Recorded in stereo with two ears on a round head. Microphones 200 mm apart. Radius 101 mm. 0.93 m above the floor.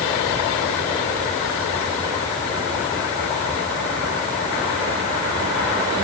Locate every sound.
Only background noise.